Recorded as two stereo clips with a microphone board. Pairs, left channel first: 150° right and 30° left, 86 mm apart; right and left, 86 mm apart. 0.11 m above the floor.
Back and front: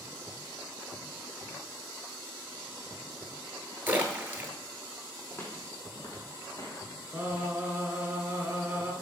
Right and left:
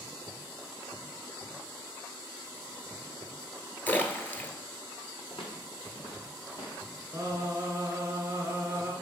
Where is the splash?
30° right, 0.7 m.